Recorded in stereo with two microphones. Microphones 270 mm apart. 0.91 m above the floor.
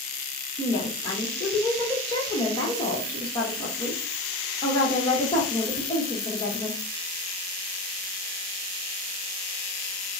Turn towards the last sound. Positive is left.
turn(degrees=15)  # may be behind; listen again after turning